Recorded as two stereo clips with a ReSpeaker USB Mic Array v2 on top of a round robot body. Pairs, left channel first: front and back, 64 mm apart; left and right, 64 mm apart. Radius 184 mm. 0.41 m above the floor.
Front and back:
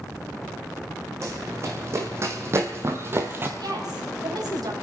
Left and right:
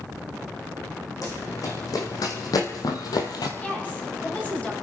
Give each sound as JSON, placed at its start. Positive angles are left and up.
{"t": 1.2, "sound": "running footsteps", "azimuth_deg": 130, "distance_m": 2.5}
{"t": 3.6, "sound": "a woman speaking", "azimuth_deg": 160, "distance_m": 3.5}